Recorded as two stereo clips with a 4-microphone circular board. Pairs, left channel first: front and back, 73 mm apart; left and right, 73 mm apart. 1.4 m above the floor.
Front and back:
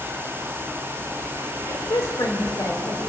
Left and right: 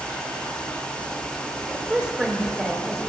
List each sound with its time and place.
1.7 s a woman speaking: 20° right, 2.5 m; by 3.1 s straight ahead, 3 m